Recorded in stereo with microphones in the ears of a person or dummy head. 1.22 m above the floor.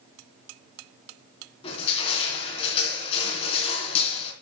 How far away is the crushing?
About 3.5 m.